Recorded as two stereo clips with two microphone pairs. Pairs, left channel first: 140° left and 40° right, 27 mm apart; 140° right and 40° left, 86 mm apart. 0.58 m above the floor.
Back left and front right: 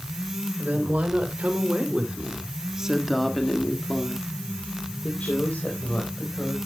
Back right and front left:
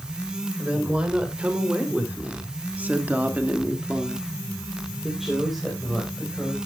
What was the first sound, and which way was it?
A woman speaking, 35° right.